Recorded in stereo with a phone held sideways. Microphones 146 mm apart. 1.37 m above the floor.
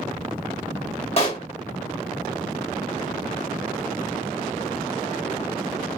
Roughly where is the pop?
Left.